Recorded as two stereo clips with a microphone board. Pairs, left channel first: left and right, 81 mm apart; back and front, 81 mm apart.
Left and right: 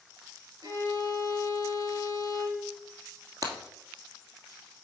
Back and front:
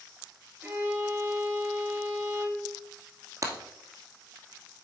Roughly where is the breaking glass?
Ahead right.